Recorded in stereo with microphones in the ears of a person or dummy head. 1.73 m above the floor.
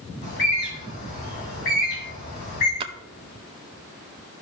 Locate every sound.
0.2 s a bird: 50° left (ahead or behind), 2.5 m
2.8 s a splash: 30° right (ahead or behind), 0.6 m